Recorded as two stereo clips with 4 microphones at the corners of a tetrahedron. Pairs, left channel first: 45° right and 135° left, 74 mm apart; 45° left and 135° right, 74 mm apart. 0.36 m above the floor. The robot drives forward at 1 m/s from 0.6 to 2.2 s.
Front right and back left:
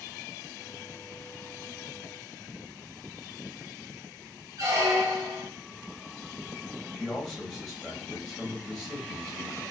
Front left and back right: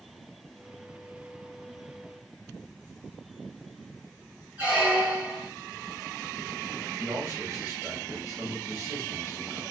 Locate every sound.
4.6 s a squeak: 160° left, 1.1 m
6.9 s a man speaking: 140° right, 1.5 m